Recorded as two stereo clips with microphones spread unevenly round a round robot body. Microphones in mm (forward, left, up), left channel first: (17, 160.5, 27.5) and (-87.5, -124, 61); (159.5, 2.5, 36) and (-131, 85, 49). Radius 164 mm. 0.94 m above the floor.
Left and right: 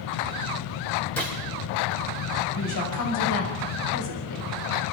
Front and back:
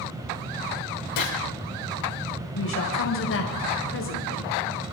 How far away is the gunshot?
About 4.5 m.